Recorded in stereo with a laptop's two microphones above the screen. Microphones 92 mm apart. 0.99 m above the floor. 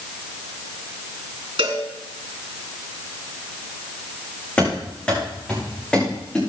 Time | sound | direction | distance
1.6 | a cowbell | 75° right (ahead or behind) | 3.5 m
4.6 | running footsteps | 15° left (ahead or behind) | 5 m